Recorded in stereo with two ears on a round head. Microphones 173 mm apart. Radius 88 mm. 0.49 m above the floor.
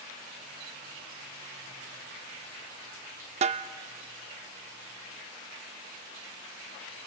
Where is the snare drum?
35° right (ahead or behind), 0.6 m.